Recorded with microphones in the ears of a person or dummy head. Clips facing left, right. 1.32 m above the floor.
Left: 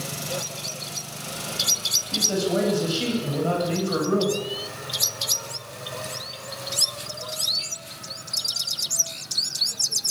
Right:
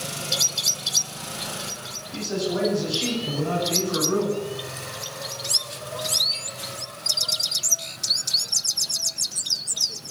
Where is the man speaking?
85° left, 9.5 m; by 4.4 s 75° left (ahead or behind), 9 m.